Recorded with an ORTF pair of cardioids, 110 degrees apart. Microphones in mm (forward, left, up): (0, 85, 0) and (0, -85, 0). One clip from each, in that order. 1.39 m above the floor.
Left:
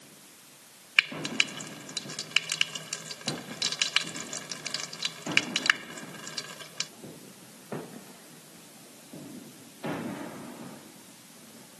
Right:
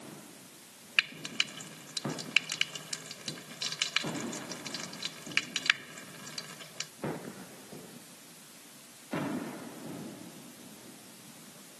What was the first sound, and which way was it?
Frying, 30° left.